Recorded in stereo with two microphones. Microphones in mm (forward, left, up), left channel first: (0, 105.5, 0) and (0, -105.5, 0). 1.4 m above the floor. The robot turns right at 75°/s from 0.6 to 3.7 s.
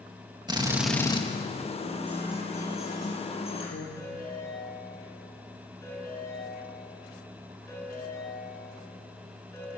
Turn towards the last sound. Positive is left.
turn(degrees=15)  # may be behind; listen again after turning